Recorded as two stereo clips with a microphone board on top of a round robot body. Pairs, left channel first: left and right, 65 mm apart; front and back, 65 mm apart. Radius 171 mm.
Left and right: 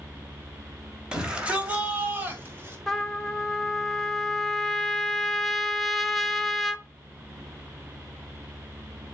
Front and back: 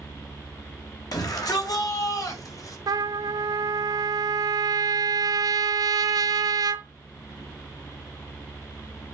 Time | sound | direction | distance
1.1 | a shout | 15° right | 2.5 m
2.9 | a trumpet | straight behind | 0.8 m